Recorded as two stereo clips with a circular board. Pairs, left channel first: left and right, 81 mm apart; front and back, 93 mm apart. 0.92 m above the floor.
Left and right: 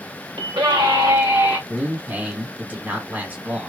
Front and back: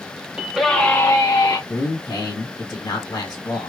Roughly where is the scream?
Right.